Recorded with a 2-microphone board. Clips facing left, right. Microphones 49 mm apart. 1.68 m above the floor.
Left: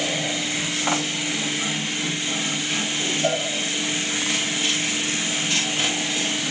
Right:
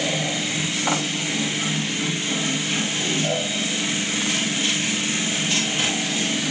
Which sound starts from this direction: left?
A cowbell, at 3.2 s.